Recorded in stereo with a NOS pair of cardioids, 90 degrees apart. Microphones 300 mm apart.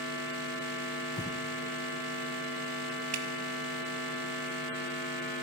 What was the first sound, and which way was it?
Breathing, 10° left.